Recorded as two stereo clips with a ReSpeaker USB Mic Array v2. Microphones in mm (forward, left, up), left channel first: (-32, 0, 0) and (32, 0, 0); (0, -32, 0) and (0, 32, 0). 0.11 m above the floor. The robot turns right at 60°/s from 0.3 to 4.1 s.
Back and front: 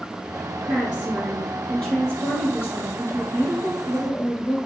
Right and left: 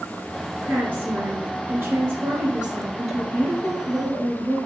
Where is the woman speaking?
50° left, 1.5 m; by 4.6 s 100° right, 1.5 m.